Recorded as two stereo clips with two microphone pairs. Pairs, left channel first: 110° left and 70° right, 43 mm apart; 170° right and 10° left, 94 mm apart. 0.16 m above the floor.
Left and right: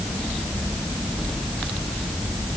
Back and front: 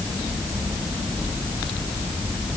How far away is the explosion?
I don't hear an explosion.